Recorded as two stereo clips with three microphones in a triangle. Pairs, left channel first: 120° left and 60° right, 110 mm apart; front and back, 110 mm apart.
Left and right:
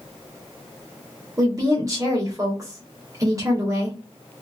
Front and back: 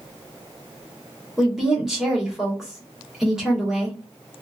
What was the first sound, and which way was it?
A woman speaking, 100° right.